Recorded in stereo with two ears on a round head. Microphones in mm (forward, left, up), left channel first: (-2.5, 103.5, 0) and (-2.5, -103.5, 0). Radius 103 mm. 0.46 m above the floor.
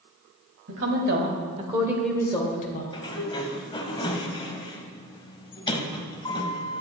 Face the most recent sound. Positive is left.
turn(degrees=20)  # may be behind; listen again after turning